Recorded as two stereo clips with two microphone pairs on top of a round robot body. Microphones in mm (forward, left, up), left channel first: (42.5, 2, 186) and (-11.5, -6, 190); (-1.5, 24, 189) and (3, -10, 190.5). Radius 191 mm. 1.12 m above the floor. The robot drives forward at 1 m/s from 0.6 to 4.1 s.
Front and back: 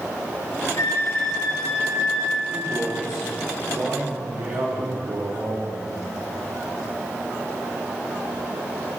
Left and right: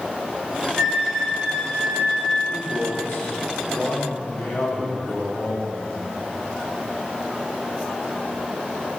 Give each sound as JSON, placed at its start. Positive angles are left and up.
{"t": 0.8, "sound": "a flute", "azimuth_deg": 10, "distance_m": 5.0}
{"t": 2.5, "sound": "a man speaking", "azimuth_deg": 130, "distance_m": 2.5}